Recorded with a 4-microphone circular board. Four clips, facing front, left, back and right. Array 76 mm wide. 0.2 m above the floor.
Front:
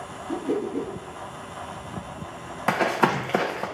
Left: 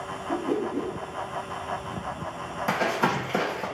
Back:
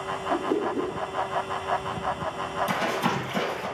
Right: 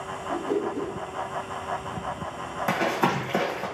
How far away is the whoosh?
About 1.7 m.